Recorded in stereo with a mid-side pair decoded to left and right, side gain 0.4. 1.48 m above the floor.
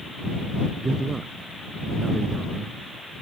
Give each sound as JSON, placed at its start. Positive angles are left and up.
{"t": 0.8, "sound": "a man speaking", "azimuth_deg": -30}